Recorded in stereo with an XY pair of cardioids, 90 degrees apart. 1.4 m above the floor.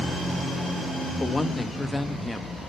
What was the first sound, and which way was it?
A woman speaking, 20° left.